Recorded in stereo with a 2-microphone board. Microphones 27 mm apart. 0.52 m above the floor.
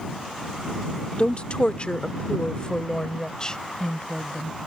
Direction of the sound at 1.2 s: 45° left (ahead or behind).